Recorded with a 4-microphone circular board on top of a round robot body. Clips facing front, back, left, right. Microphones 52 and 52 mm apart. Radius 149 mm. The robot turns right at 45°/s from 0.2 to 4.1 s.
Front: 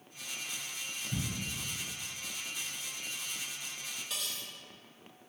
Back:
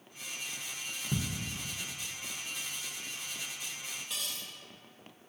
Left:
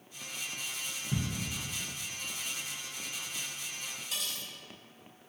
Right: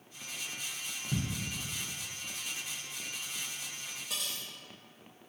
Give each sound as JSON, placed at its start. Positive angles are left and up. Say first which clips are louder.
{"t": 1.1, "sound": "ticking", "louder": "back 6 dB, even", "azimuth_deg": -175, "distance_m": 0.8}
{"t": 4.1, "sound": "cutlery clinking", "louder": "even, even", "azimuth_deg": -90, "distance_m": 0.5}